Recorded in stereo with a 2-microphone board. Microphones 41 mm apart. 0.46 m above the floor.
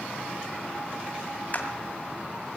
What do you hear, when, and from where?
1.5 s a clap: 45° left (ahead or behind), 2.0 m